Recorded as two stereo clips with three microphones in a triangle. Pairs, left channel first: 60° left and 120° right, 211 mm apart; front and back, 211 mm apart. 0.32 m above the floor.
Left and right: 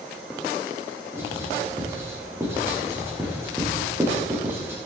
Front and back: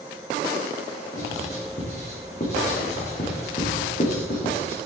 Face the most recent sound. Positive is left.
turn(degrees=-45)